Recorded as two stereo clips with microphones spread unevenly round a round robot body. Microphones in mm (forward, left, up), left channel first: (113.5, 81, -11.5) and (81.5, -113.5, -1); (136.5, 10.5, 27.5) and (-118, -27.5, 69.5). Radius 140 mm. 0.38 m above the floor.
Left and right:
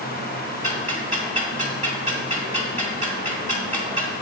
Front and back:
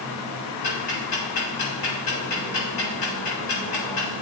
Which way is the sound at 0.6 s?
45° right.